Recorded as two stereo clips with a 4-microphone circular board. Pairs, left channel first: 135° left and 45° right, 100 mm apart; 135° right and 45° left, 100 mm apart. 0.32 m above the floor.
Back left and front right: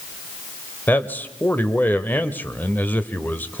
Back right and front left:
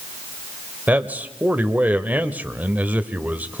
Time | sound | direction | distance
0.9 | a man speaking | 95° left | 1.1 m